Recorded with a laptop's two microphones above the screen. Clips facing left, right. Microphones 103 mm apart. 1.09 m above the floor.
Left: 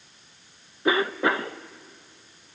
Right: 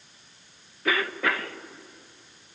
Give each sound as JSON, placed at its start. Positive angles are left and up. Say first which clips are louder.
{"t": 0.8, "sound": "a cough", "louder": "left 4 dB", "side_deg": 25, "distance_m": 0.8}